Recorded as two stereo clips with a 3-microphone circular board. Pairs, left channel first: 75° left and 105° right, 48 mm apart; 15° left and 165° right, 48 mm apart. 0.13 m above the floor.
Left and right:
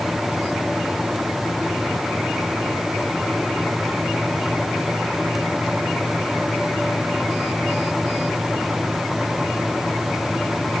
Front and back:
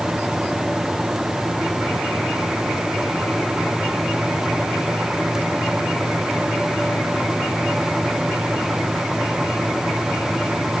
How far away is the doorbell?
I don't hear a doorbell.